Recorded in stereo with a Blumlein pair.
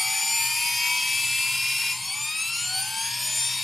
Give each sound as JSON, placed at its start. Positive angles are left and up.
{"t": 0.0, "sound": "a machine running", "azimuth_deg": 5, "distance_m": 0.9}